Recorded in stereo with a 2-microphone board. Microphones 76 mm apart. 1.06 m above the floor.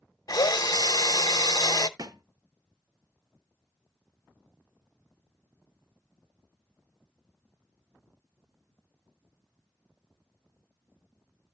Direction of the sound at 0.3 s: 55° left (ahead or behind).